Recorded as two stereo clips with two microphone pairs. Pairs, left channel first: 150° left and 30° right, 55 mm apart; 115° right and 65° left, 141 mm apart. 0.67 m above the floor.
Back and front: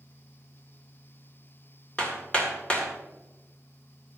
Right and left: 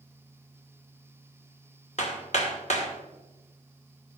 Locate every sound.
2.0 s hammering: 145° right, 2 m